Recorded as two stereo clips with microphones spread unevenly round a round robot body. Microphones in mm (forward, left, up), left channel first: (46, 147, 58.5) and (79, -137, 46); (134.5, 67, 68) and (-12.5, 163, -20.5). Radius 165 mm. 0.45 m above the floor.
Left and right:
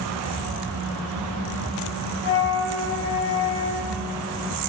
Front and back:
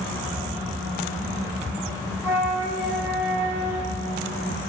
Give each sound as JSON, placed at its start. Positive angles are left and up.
{"t": 2.2, "sound": "a flute", "azimuth_deg": 105, "distance_m": 1.2}